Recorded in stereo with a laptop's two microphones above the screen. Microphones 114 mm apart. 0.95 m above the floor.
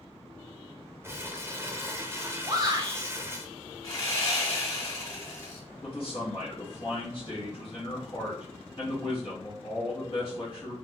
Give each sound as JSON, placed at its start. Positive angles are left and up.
{"t": 1.0, "sound": "crumpling", "side_deg": -20, "distance_m": 0.5}
{"t": 2.5, "sound": "a shout", "side_deg": -35, "distance_m": 1.0}
{"t": 3.8, "sound": "sawing", "side_deg": 30, "distance_m": 1.9}
{"t": 5.8, "sound": "a man speaking", "side_deg": 40, "distance_m": 1.4}